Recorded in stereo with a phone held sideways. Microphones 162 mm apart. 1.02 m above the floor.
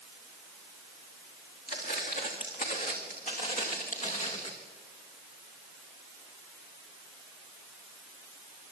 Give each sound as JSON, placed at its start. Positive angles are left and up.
{"t": 1.7, "sound": "footsteps", "side_deg": 65, "distance_m": 5.0}